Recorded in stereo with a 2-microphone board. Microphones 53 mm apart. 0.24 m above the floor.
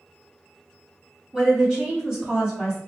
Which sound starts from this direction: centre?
A woman speaking, at 1.3 s.